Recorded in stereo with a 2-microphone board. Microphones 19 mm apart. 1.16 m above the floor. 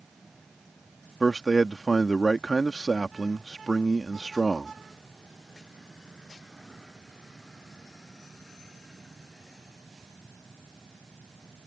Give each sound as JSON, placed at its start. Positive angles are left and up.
{"t": 1.2, "sound": "a man speaking", "side_deg": 5}